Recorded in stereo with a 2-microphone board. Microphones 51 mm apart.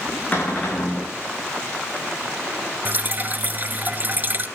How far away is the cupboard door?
About 5.5 m.